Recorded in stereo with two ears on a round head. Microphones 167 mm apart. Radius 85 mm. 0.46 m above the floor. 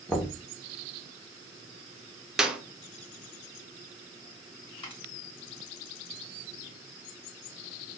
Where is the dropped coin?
30° left (ahead or behind), 1.5 m.